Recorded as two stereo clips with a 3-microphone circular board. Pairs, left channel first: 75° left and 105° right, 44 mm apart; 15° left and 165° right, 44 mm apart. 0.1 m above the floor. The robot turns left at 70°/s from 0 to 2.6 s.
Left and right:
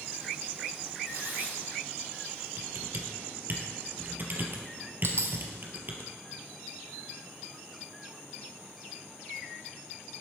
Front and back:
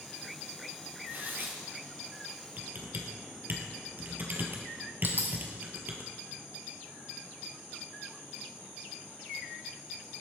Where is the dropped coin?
125° right, 1.8 m.